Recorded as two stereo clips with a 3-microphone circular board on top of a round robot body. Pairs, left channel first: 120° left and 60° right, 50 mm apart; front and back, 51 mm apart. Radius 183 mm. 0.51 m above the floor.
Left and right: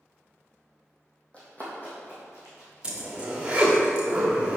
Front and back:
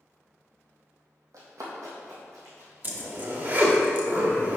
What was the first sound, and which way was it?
Running footsteps, 170° right.